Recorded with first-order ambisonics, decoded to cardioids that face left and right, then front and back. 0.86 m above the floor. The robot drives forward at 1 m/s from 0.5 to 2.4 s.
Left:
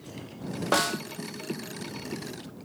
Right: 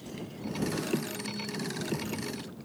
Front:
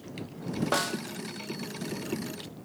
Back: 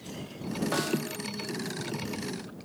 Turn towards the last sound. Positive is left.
turn(degrees=155)